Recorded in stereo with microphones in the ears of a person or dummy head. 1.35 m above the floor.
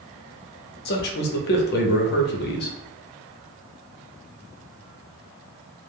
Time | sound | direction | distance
0.8 | a man speaking | 45° left (ahead or behind) | 0.6 m